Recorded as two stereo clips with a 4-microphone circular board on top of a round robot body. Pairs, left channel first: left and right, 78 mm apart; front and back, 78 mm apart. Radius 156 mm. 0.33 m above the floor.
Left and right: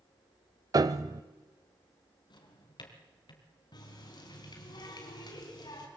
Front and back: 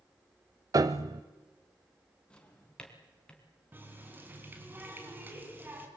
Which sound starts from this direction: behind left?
A running tap, at 3.7 s.